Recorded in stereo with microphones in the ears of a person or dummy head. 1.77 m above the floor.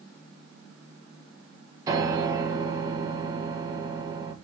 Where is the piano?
20° right (ahead or behind), 1.8 m.